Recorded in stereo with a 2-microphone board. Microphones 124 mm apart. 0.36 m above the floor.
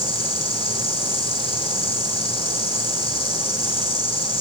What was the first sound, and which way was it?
An insect, 45° left (ahead or behind).